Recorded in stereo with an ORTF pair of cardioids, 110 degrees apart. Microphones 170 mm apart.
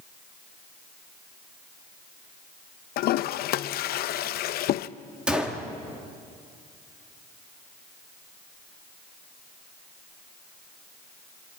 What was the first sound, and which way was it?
A toilet flushing, 65° left.